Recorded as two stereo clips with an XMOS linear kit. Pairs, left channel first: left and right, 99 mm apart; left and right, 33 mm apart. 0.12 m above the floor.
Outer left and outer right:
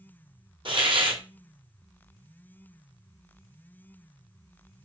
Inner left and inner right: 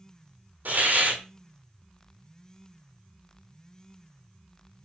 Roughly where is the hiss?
Right.